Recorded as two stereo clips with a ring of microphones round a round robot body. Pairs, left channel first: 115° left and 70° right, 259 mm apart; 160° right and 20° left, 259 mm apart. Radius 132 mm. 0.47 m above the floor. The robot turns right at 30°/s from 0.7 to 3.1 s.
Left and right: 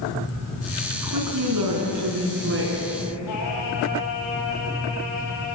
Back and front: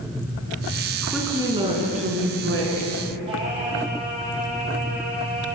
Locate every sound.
0.9 s a woman speaking: 70° right, 7 m; by 2.9 s 10° right, 7 m
3.3 s singing: 95° left, 9 m